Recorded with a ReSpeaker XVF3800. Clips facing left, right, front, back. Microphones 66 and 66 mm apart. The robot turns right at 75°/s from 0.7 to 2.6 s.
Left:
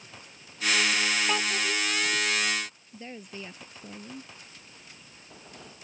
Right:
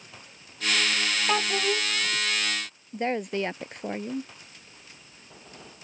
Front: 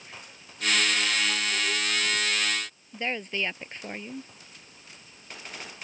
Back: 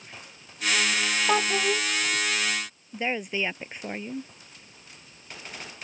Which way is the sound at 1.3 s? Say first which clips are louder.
Right 3 dB, back 6 dB; 165° right.